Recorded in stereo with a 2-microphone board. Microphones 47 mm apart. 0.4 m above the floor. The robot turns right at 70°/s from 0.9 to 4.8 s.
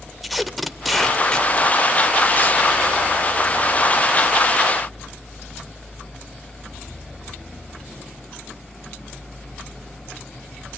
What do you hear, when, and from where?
0.2 s tape being pulled: centre (ahead or behind), 0.9 m; by 2.6 s 30° left (ahead or behind), 0.9 m